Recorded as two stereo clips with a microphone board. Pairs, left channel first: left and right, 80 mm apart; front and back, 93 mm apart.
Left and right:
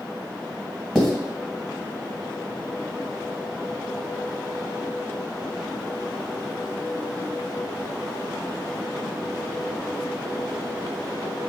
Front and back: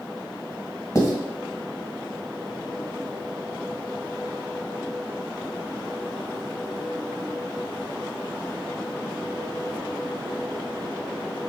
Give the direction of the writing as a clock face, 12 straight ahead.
12 o'clock.